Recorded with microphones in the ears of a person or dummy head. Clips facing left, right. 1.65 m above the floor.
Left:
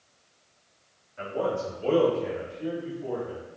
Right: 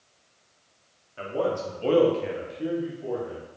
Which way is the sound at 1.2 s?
40° right (ahead or behind).